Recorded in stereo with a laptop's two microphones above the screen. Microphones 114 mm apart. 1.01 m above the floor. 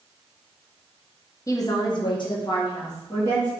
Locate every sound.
1.5 s a woman speaking: 30° left (ahead or behind), 0.7 m; by 3.5 s 35° left (ahead or behind), 1.3 m